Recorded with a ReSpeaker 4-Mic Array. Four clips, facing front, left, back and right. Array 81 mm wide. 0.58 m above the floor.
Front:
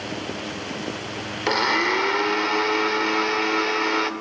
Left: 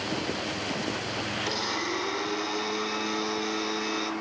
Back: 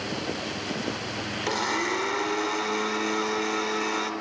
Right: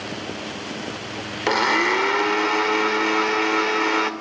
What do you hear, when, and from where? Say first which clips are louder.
1.5 s a blender: right 16 dB, front 6 dB; 65° right, 2.5 m